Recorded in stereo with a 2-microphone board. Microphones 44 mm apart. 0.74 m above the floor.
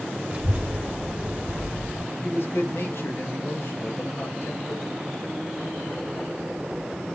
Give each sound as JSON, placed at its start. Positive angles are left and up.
{"t": 0.3, "sound": "a child speaking", "side_deg": -25, "distance_m": 2.0}
{"t": 2.2, "sound": "a man speaking", "side_deg": 60, "distance_m": 4.0}